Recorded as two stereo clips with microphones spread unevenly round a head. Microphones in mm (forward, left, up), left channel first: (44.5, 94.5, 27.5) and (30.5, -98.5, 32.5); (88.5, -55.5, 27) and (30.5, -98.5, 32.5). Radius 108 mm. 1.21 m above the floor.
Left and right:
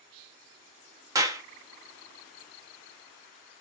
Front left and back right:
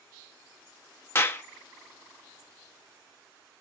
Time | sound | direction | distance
1.1 | a clap | 20° right | 0.8 m